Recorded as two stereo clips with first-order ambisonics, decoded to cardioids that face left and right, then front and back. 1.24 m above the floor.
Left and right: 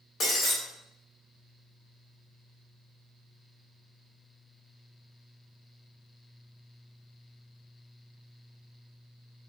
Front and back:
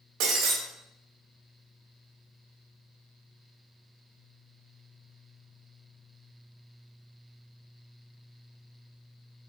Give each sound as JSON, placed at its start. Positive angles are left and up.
{"t": 0.2, "sound": "breaking glass", "azimuth_deg": 150, "distance_m": 2.0}